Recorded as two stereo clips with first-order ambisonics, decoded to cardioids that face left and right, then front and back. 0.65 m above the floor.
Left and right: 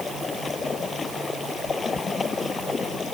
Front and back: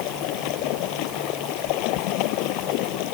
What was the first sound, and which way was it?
Running water, 15° left.